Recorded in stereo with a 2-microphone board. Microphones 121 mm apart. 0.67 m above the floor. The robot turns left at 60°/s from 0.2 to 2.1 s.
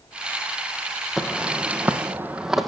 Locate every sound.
1.2 s footsteps: 5° right (ahead or behind), 1.7 m; by 2.7 s centre (ahead or behind), 1.6 m